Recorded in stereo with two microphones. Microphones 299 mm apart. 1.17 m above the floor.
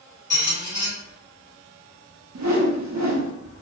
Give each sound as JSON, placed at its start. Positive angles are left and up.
{"t": 0.3, "sound": "a squeak", "side_deg": 40, "distance_m": 1.4}
{"t": 2.4, "sound": "a whoosh", "side_deg": -65, "distance_m": 0.5}